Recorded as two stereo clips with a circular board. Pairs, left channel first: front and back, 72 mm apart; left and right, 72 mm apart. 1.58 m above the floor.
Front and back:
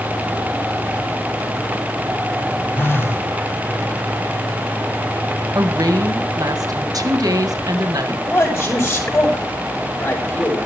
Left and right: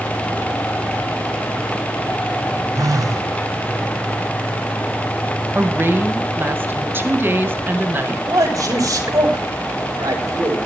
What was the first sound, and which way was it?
A phone buzzing, 55° right.